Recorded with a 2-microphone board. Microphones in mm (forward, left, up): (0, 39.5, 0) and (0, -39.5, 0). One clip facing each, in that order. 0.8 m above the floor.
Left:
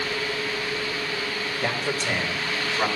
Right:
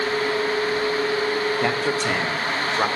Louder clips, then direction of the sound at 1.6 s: Right 5 dB; 50° right (ahead or behind).